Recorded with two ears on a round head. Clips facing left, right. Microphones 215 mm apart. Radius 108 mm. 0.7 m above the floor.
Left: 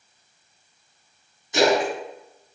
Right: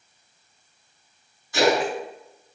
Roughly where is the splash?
Centre.